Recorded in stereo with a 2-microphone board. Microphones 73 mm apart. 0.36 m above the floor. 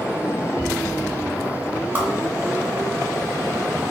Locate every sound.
1.9 s a whoosh: 30° right (ahead or behind), 0.9 m